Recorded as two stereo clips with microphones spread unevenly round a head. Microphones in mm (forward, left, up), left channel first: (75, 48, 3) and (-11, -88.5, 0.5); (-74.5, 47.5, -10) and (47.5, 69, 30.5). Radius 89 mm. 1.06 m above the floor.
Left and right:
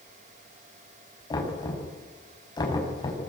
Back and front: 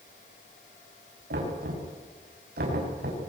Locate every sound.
1.3 s knocking: 10° right, 7 m